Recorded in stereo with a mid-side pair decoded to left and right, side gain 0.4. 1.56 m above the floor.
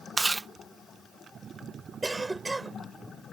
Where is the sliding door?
I don't hear a sliding door.